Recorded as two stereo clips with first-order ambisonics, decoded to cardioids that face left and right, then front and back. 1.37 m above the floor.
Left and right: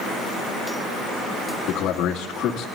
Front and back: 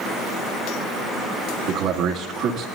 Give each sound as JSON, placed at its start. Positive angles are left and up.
{"t": 1.7, "sound": "a man speaking", "azimuth_deg": 140, "distance_m": 2.5}